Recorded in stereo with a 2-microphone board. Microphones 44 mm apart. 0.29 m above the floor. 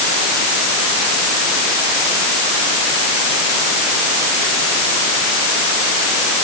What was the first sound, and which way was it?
Only background noise.